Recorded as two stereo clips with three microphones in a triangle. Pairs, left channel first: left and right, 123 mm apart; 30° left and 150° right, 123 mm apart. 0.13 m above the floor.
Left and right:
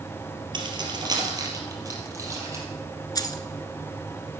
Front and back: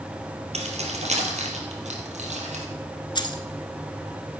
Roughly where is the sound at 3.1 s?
Ahead left.